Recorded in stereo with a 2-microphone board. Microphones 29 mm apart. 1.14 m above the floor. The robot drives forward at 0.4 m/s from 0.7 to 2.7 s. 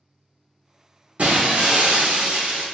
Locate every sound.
1.2 s breaking glass: 50° right (ahead or behind), 1.0 m; by 2.6 s 45° right (ahead or behind), 1.1 m